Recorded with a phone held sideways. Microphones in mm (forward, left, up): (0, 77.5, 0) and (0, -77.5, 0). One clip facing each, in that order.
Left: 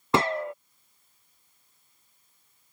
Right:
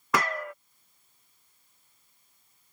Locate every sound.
0.1 s a gunshot: 30° left (ahead or behind)